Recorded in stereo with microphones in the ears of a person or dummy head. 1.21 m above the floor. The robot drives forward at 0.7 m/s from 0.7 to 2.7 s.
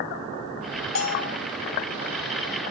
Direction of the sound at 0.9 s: 85° left.